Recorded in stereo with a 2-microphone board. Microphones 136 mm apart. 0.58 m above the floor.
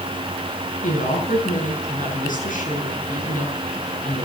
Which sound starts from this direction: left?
A woman speaking, at 0.8 s.